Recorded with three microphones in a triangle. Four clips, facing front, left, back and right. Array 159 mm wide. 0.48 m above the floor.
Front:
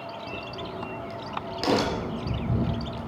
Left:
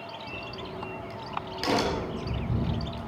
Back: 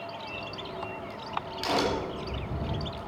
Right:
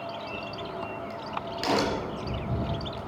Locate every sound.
0.3 s a crack: straight ahead, 4 m